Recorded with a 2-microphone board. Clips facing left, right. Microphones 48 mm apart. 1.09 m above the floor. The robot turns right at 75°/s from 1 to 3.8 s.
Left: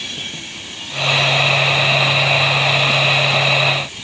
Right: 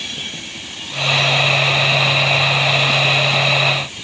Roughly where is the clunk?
I don't hear a clunk.